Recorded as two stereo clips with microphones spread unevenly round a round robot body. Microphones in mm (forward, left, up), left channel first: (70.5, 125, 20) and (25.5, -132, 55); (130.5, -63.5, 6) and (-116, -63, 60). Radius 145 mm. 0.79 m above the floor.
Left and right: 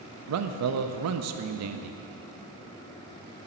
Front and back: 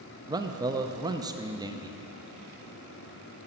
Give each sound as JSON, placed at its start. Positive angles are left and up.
{"t": 0.3, "sound": "a man speaking", "azimuth_deg": -95, "distance_m": 0.5}